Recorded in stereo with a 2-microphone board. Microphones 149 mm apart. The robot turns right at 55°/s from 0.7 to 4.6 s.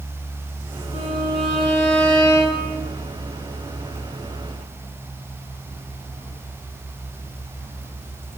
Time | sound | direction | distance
0.9 | a violin | 110° left | 6 m